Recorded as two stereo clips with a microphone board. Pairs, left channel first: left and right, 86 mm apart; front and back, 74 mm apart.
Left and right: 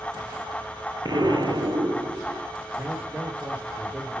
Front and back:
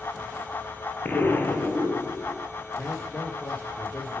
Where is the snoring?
No snoring in this recording.